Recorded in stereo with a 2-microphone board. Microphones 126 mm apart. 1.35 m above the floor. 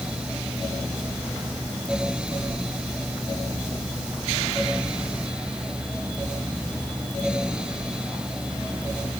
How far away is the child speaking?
No child speaking in this recording.